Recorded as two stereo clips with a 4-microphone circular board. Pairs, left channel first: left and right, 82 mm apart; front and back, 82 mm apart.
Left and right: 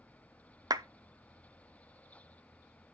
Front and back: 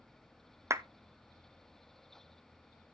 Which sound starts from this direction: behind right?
A clap, at 0.7 s.